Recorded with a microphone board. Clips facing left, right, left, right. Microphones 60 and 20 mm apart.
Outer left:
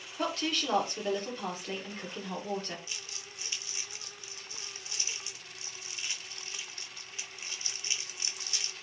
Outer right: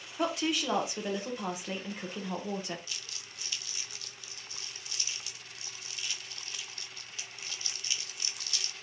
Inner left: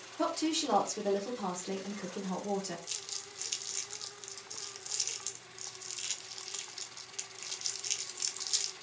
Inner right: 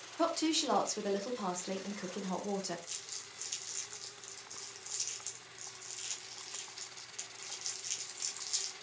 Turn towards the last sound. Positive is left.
turn(degrees=25)  # may be behind; listen again after turning